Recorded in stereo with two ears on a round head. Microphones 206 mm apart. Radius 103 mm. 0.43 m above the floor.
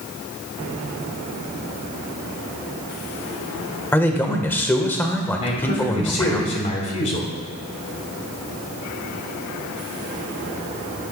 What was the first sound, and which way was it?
A man speaking, 10° left (ahead or behind).